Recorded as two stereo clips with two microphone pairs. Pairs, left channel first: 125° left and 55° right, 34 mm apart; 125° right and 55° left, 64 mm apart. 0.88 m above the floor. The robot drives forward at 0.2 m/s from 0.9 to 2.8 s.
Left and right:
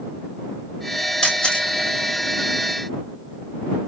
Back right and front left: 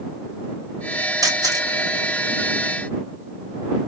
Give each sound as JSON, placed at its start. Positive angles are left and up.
{"t": 1.2, "sound": "a camera shutter", "azimuth_deg": 60, "distance_m": 1.2}